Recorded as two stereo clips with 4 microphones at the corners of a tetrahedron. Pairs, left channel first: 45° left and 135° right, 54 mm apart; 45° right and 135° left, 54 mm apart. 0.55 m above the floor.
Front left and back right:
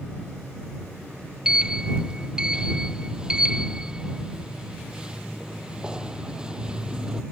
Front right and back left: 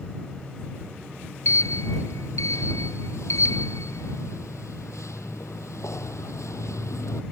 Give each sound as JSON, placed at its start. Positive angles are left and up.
{"t": 1.4, "sound": "a sliding door", "azimuth_deg": -60}